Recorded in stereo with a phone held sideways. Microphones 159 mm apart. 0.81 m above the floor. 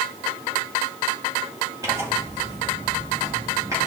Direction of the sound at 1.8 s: 20° right (ahead or behind).